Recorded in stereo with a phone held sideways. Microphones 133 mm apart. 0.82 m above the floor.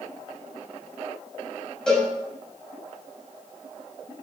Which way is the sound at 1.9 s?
5° left (ahead or behind).